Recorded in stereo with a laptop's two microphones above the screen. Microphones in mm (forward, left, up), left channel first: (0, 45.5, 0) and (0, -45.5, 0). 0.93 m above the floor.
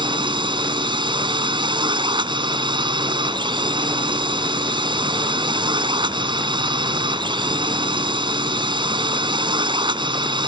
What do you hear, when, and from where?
0.0 s a drone: 55° right (ahead or behind)